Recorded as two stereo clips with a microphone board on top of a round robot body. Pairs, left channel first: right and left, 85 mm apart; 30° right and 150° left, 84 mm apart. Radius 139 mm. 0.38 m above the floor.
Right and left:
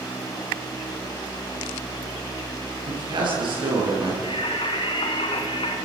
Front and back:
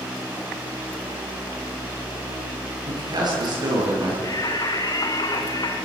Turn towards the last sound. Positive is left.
turn(degrees=-75)